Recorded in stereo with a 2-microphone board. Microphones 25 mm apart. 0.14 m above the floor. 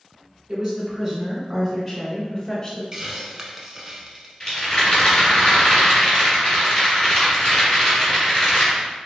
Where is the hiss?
20° right (ahead or behind), 0.6 m.